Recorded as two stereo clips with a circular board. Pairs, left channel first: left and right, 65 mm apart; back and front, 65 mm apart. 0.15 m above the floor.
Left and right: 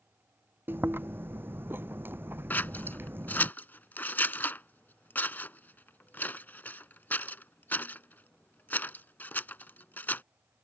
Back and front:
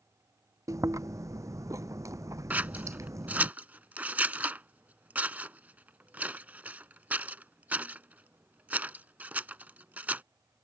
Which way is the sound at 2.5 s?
50° left.